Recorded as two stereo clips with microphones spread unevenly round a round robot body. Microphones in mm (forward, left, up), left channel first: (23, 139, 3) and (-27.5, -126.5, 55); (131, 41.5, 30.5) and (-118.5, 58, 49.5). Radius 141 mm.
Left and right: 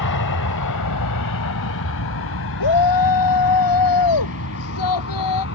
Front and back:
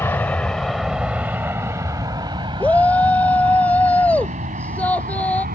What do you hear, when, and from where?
0.0 s an aircraft: 75° left; by 5.5 s 120° left
2.6 s a shout: 80° left